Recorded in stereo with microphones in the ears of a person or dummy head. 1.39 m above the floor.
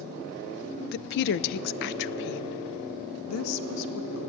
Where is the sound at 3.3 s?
85° left, 1.2 m.